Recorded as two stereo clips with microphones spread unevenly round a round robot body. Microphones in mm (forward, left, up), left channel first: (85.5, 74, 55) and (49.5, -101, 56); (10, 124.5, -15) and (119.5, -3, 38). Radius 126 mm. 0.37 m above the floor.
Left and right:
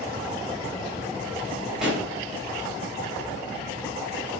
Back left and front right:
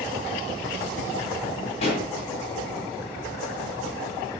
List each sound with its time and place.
1.8 s a pop: 170° left, 1.8 m